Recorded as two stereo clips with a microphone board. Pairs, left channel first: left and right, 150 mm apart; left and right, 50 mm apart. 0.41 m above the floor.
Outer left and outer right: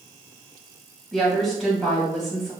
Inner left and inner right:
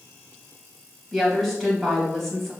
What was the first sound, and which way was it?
A woman speaking, centre (ahead or behind).